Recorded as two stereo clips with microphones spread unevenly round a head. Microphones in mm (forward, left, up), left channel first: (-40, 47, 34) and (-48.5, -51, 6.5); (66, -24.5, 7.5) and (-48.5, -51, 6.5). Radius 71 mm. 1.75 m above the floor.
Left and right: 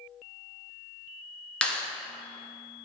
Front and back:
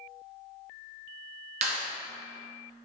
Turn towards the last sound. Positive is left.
turn(degrees=155)